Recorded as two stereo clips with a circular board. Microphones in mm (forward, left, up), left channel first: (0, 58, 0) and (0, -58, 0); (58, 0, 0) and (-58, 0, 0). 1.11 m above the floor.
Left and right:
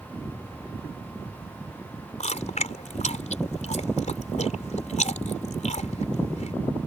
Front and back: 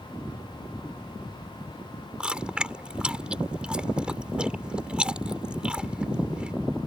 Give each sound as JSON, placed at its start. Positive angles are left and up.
{"t": 2.2, "sound": "chewing", "azimuth_deg": 100}